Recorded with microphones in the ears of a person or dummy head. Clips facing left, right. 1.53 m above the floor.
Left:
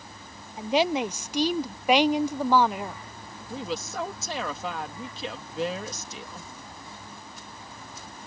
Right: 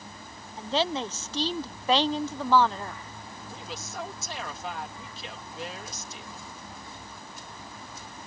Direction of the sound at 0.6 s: 15° left (ahead or behind).